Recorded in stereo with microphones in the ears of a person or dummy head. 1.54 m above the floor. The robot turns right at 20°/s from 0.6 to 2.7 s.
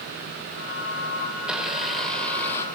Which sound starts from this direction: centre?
A blender, at 1.4 s.